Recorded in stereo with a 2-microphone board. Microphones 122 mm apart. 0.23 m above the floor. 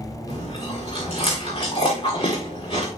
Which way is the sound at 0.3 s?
50° left (ahead or behind).